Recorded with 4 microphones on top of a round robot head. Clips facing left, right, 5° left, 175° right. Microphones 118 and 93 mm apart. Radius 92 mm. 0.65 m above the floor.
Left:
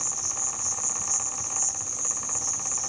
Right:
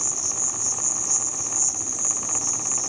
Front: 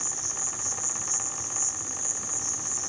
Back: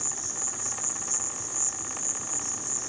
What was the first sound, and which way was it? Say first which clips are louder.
An insect: right 3 dB, even; 95° right.